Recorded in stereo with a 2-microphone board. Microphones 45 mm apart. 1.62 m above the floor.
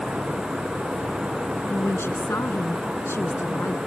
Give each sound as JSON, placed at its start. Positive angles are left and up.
{"t": 1.7, "sound": "a woman speaking", "side_deg": 70}